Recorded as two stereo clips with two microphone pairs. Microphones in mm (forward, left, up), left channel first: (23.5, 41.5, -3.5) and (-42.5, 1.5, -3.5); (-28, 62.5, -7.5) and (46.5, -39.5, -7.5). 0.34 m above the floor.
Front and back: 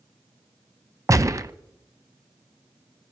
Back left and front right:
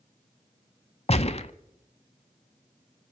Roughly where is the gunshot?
Behind.